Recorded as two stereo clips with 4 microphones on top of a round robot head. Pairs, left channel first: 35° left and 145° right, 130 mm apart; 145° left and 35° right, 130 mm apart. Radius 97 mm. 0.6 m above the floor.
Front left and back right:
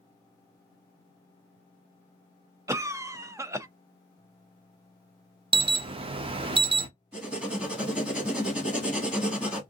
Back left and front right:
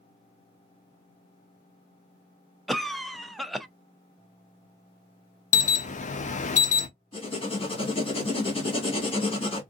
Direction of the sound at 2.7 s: 130° right.